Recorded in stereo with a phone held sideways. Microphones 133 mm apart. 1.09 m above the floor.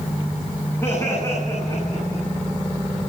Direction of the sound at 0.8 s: 20° left (ahead or behind).